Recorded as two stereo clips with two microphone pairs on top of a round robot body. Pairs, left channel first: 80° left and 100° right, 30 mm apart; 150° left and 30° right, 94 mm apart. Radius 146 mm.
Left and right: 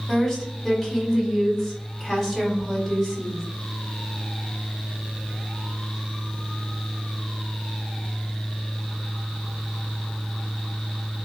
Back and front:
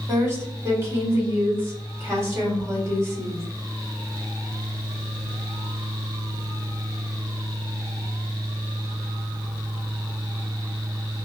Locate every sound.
0.1 s a woman speaking: 5° left, 1.7 m